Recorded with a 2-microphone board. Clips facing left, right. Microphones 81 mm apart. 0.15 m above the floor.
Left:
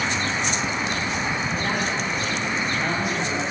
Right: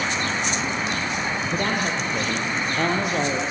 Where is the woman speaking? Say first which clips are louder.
Right 1 dB; 65° right (ahead or behind), 6 m; by 3.4 s 70° right (ahead or behind), 5 m.